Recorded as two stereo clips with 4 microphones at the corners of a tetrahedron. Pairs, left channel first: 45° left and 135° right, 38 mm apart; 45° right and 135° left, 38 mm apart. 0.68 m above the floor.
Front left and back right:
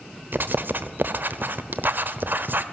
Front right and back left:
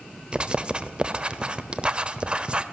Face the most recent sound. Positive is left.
turn(degrees=-165)